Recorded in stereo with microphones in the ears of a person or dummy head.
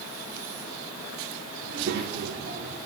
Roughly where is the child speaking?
Right.